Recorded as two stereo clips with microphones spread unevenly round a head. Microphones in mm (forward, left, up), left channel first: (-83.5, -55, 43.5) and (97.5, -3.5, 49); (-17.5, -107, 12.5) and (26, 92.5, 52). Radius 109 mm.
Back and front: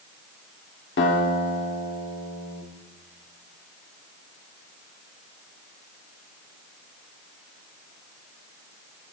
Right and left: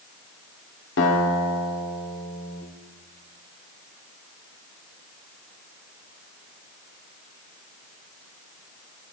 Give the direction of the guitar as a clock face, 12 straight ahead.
5 o'clock.